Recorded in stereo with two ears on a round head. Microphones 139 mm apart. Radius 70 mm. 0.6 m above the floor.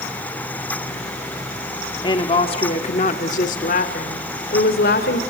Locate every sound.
2.0 s a woman speaking: 30° left (ahead or behind), 1.3 m; by 5.2 s 70° left (ahead or behind), 2.5 m